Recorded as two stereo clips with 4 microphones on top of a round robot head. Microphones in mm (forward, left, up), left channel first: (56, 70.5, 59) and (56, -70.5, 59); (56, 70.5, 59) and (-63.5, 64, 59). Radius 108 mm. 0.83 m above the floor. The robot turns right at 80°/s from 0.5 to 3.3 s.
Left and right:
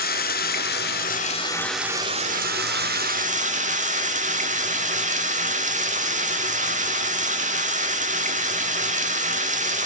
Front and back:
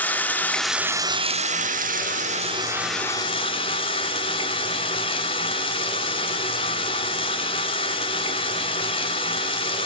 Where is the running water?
80° left, 1.0 m; by 9.9 s 55° right, 1.0 m.